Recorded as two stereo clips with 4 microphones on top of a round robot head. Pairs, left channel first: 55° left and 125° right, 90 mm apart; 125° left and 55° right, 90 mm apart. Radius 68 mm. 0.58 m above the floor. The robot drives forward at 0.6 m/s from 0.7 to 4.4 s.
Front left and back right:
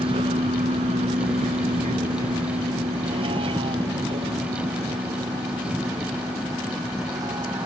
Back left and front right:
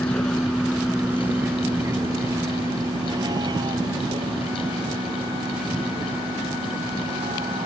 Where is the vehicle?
160° right; by 7.7 s 75° right.